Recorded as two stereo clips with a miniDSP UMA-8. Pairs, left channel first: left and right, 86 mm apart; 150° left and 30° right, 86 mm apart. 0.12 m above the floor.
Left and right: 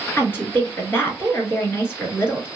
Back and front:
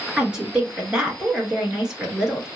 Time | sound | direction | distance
0.2 | a woman speaking | 40° left | 1.6 m